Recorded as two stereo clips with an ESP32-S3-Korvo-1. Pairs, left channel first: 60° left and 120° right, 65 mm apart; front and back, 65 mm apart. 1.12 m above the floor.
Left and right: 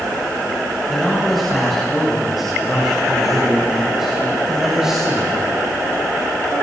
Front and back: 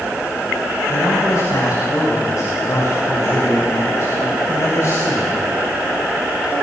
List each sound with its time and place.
0.9 s a man speaking: 30° right, 7.5 m; by 5.4 s 40° right, 5.5 m